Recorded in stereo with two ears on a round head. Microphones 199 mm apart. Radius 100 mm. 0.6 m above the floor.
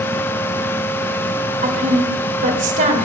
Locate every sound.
1.6 s a woman speaking: 35° right (ahead or behind), 2 m